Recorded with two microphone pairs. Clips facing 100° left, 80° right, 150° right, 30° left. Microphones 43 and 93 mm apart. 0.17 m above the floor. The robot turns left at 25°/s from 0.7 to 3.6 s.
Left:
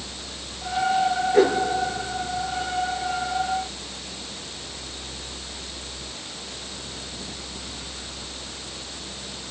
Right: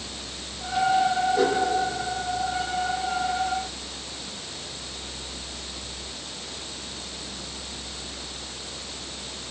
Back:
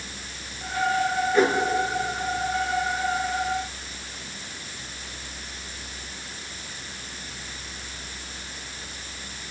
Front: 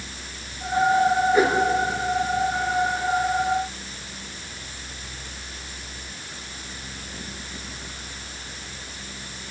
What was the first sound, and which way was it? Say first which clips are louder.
A whoosh: left 8 dB, back 2 dB; 110° left.